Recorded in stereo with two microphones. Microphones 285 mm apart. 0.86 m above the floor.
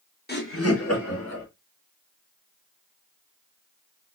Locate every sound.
0.3 s laughter: 35° left (ahead or behind), 0.8 m; by 1.4 s 75° left (ahead or behind), 1.8 m